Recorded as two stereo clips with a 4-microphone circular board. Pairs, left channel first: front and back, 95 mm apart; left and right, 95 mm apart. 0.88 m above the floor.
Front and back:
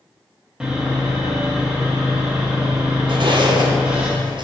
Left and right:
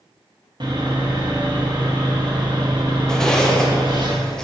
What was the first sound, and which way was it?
Sawing, 100° right.